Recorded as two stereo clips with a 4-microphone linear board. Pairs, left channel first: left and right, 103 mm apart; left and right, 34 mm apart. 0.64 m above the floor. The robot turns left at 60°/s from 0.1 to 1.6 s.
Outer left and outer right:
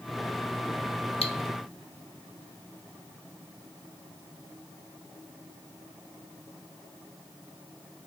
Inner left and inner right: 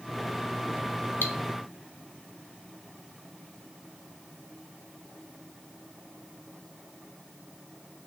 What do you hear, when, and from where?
1.2 s cutlery clinking: 75° left (ahead or behind), 0.6 m